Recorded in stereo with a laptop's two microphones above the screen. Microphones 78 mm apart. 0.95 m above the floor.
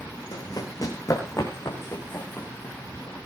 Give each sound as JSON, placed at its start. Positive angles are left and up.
{"t": 0.3, "sound": "running footsteps", "side_deg": 60, "distance_m": 3.5}